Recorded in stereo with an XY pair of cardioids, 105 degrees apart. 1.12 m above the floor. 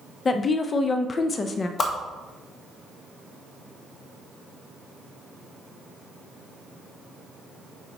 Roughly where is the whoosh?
Ahead left.